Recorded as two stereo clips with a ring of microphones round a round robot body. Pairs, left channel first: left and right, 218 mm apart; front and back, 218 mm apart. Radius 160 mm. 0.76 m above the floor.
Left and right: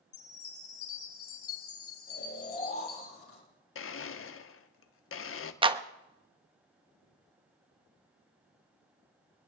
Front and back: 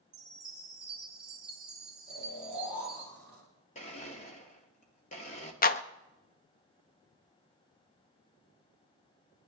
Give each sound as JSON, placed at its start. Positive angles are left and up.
{"t": 0.1, "sound": "a chime", "azimuth_deg": 95, "distance_m": 1.9}
{"t": 2.1, "sound": "snoring", "azimuth_deg": 80, "distance_m": 6.0}
{"t": 3.8, "sound": "a blender", "azimuth_deg": 65, "distance_m": 1.0}
{"t": 5.6, "sound": "a clap", "azimuth_deg": -30, "distance_m": 1.0}